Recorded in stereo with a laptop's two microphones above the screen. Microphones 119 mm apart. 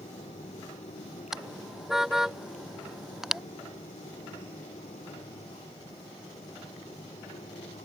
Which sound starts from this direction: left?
A fan, at 0.0 s.